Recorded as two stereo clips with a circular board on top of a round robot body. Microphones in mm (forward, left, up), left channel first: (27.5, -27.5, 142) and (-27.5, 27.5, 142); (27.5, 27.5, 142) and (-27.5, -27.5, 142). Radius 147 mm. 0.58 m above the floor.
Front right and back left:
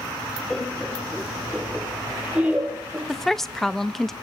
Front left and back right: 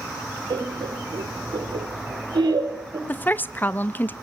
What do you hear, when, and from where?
0.5 s laughter: 125° right, 2.5 m; by 3.0 s 155° right, 3.5 m
3.1 s a woman speaking: 35° left, 0.7 m